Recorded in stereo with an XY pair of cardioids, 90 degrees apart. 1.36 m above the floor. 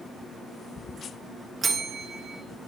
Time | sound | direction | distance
1.6 | a bell | 40° right | 1.8 m